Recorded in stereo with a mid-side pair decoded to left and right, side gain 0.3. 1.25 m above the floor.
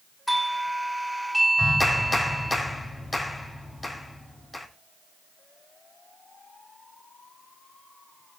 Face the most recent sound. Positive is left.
turn(degrees=35)